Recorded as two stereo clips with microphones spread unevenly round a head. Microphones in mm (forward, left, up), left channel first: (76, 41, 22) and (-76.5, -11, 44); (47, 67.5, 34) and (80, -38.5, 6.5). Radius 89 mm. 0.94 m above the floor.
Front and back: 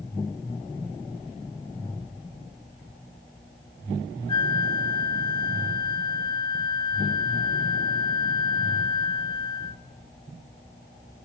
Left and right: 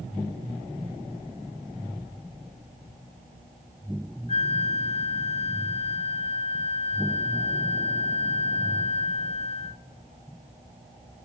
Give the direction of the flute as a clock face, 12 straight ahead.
10 o'clock.